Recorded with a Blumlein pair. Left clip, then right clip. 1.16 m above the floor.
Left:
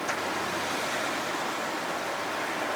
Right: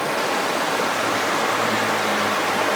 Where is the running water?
40° right, 1.0 m.